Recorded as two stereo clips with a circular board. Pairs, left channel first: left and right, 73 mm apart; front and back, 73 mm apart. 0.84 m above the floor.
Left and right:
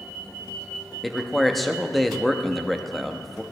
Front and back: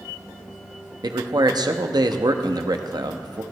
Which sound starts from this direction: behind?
A man speaking, at 1.0 s.